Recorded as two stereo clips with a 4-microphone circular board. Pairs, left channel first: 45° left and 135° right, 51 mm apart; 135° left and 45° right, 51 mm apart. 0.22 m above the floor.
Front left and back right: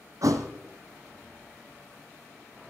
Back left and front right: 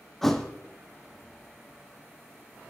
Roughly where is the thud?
Behind right.